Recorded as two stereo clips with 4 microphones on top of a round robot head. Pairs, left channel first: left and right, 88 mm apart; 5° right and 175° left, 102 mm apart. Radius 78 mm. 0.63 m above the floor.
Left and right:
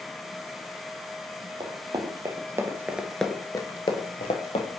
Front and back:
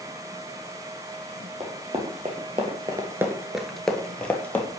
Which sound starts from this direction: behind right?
Running footsteps, at 1.6 s.